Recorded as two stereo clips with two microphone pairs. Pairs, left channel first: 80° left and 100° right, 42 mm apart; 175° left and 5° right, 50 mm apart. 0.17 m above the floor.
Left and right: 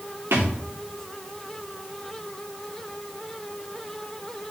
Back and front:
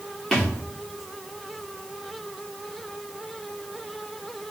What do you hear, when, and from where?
0.3 s a thud: 100° right, 2.5 m